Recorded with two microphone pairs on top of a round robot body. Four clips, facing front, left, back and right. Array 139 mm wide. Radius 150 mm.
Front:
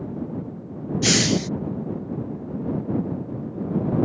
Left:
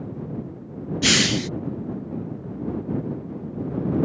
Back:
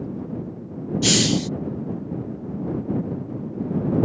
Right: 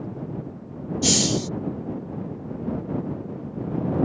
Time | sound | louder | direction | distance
1.0 | a hiss | left 1 dB, even | 90° left | ?